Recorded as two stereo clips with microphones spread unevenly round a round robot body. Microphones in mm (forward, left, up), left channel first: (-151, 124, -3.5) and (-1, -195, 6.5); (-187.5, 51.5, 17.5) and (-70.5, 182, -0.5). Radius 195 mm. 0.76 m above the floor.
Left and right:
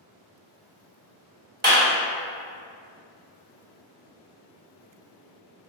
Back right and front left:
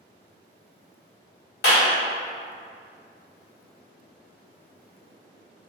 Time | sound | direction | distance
1.6 | a clap | 130° right | 1.7 m